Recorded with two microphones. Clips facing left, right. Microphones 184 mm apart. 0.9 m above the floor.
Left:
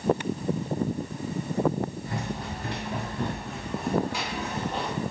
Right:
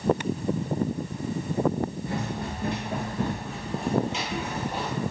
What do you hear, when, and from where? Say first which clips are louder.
2.0 s running footsteps: right 2 dB; 60° right (ahead or behind), 1.8 m; by 4.9 s 5° right (ahead or behind), 1.3 m